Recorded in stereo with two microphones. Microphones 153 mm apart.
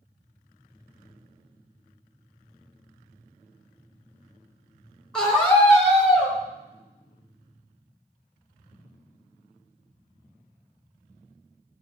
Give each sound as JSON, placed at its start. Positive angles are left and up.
{"t": 5.1, "sound": "a scream", "side_deg": 5, "distance_m": 3.0}